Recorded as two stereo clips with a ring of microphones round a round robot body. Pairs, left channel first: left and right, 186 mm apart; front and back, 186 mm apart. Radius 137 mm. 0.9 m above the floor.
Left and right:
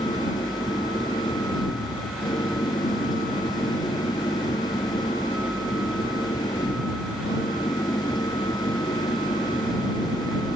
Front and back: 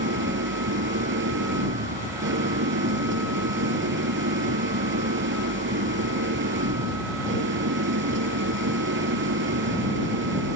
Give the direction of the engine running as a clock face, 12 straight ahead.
6 o'clock.